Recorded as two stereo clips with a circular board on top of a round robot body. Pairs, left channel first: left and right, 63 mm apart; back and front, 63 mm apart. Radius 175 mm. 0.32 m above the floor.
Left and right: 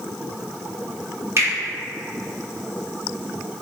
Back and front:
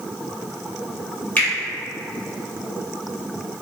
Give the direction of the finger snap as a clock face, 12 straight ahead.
4 o'clock.